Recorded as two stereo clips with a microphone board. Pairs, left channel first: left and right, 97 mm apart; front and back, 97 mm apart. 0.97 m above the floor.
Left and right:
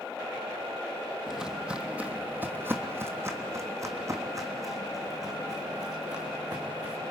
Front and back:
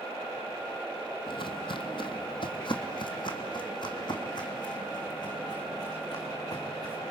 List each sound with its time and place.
1.3 s footsteps: 5° right, 1.6 m; by 7.1 s 45° right, 4 m